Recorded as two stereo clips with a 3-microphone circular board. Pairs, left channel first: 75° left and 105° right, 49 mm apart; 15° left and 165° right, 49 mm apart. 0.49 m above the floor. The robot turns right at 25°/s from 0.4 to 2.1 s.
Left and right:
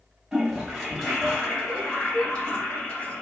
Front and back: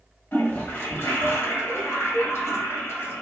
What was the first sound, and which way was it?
A toilet flushing, 25° right.